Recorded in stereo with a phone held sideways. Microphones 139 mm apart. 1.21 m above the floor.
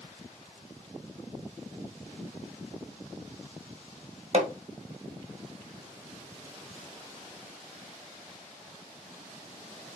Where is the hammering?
55° right (ahead or behind), 1.7 m.